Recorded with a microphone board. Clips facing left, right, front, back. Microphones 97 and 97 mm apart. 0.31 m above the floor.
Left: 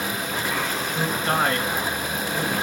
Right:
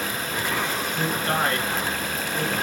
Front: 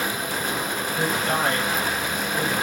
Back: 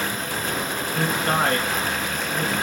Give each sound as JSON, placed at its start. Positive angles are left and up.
{"t": 0.9, "sound": "a man speaking", "azimuth_deg": 150, "distance_m": 4.0}